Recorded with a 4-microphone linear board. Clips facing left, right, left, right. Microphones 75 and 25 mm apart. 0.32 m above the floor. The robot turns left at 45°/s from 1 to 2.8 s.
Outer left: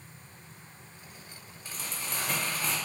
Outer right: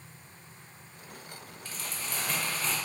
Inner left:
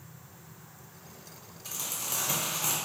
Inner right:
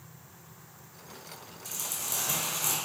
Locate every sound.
1.6 s crumpling: 20° left (ahead or behind), 0.8 m; by 2.8 s 15° left (ahead or behind), 0.8 m